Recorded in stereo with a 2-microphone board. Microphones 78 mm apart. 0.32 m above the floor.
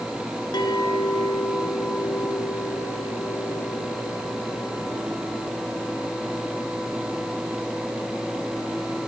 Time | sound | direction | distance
0.5 | a clink | 70° left (ahead or behind) | 2.5 m